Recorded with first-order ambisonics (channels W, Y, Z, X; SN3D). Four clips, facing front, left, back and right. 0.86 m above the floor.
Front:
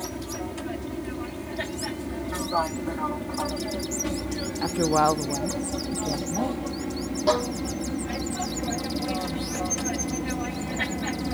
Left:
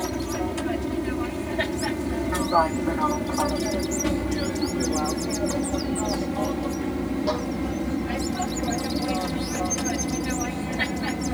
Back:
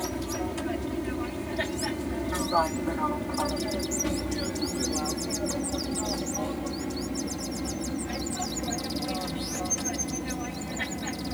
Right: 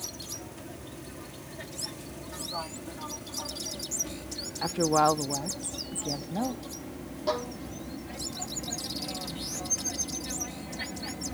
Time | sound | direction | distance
0.0 | an aircraft | 100° left | ?
4.6 | a woman speaking | 30° right | ?
7.3 | a violin | 5° left | ?